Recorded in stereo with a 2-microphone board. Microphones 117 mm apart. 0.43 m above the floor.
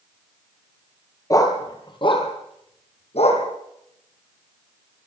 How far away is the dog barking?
About 3 m.